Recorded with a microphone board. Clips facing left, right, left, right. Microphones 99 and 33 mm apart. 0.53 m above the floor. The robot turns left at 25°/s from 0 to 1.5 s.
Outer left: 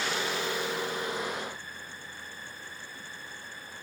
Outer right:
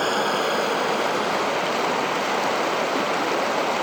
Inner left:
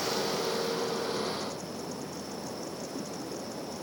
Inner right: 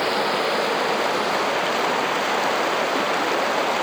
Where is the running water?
50° right; by 3.8 s 90° right.